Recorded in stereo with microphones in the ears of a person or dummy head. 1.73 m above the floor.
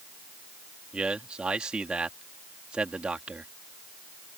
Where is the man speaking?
5° right (ahead or behind).